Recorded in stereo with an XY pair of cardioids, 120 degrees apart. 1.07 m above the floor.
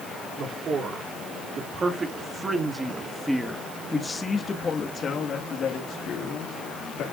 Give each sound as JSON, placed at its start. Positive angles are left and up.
{"t": 0.4, "sound": "a man speaking", "azimuth_deg": -50, "distance_m": 3.0}